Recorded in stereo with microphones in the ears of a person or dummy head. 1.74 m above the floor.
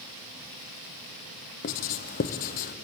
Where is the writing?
45° left (ahead or behind), 0.7 m.